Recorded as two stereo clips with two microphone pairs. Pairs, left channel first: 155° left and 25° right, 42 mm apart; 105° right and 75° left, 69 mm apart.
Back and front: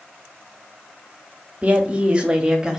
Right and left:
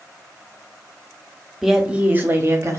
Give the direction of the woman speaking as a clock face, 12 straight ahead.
12 o'clock.